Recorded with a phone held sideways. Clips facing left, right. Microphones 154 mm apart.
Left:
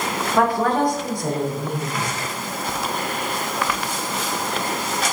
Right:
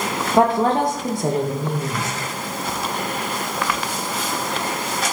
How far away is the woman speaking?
About 0.7 m.